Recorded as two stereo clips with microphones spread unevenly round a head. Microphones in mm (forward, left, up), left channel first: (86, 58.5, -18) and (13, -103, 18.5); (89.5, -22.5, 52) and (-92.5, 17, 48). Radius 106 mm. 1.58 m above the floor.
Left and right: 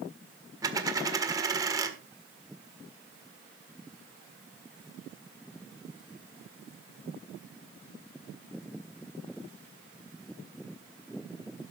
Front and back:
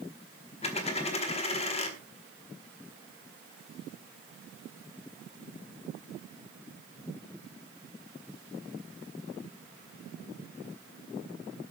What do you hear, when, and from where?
0.6 s a dropped coin: 60° right, 1.6 m